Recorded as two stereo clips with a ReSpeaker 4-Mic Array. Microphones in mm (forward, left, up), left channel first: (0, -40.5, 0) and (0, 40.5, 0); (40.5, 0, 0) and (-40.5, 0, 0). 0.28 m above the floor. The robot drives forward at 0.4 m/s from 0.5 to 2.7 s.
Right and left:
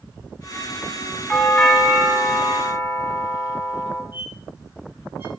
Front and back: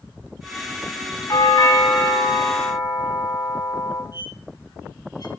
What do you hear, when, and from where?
1.3 s a doorbell: 5° right, 3 m
4.1 s a squeak: 35° left, 1.8 m